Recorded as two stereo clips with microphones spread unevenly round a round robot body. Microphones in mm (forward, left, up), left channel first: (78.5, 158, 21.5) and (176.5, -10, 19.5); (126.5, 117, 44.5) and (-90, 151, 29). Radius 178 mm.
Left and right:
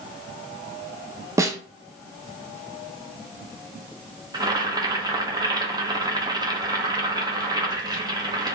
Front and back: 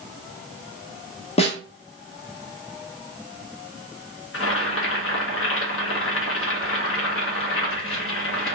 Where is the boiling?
10° left, 1.3 m.